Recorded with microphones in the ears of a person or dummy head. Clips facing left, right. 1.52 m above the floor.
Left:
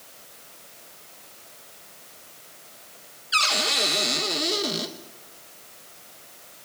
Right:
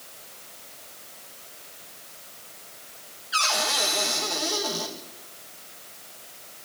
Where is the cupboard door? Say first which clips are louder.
Even; 40° left (ahead or behind), 1.7 m.